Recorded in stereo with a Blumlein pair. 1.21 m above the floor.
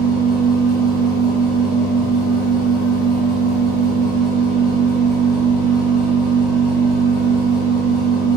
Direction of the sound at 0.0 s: 10° left.